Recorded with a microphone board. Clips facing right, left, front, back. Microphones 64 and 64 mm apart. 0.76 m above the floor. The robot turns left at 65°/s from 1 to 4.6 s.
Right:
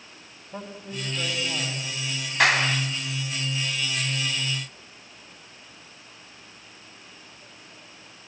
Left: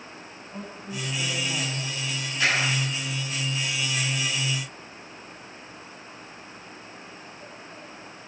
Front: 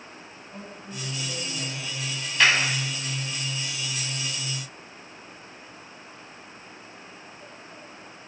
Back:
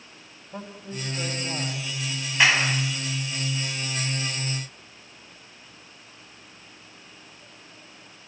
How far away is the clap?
About 6 m.